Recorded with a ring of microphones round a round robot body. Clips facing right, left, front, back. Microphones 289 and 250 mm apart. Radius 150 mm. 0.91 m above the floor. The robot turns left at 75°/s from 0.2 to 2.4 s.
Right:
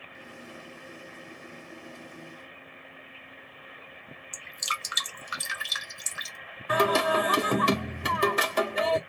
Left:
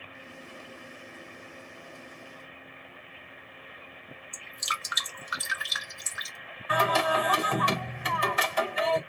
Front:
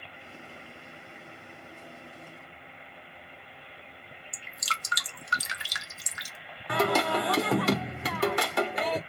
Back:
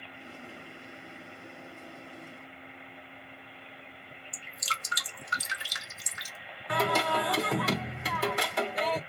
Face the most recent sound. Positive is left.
turn(degrees=-45)